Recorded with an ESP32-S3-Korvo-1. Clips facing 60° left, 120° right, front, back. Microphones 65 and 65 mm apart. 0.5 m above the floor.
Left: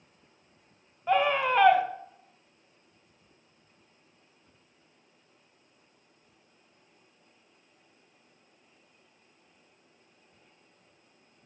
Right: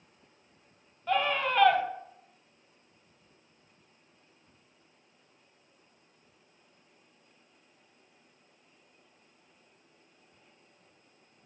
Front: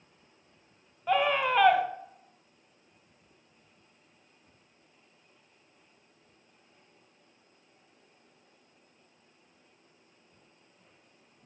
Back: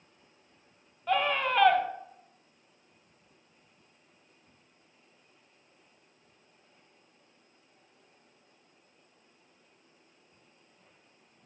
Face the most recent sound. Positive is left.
turn(degrees=65)